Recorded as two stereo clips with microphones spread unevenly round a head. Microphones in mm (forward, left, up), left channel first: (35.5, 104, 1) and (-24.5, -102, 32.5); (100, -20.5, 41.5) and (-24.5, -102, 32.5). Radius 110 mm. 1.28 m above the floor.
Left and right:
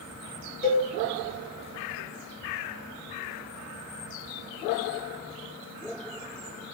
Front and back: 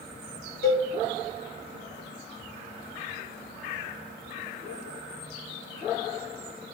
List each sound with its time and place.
0.6 s a cowbell: 20° left, 1.1 m